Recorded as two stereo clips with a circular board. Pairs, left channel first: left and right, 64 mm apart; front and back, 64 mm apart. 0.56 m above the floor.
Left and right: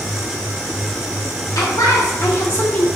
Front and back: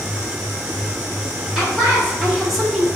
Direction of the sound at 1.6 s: 90° left.